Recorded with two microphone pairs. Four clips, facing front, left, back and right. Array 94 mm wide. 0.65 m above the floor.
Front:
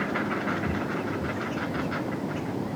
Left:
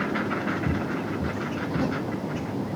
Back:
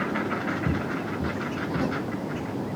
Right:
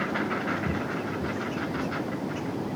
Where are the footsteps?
Straight behind; by 2.5 s 125° left.